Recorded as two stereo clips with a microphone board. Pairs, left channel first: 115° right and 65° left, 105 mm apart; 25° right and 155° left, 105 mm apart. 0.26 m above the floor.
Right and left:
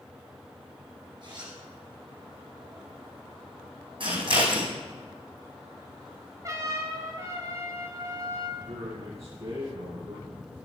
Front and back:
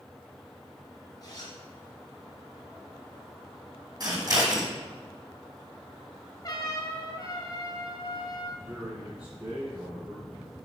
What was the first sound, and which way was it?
A zipper, 25° left.